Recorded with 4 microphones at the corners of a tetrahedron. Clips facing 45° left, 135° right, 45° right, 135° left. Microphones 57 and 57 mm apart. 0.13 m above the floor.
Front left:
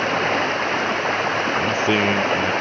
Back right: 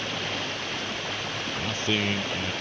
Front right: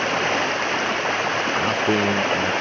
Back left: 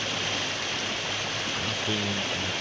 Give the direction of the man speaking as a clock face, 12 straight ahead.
12 o'clock.